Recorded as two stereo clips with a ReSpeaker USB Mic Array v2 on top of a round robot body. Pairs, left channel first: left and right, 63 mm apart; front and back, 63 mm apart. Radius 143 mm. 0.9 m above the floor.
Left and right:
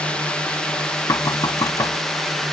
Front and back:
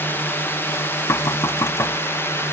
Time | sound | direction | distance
0.0 | a drone | 25° left | ?
1.1 | knocking | 45° left | ?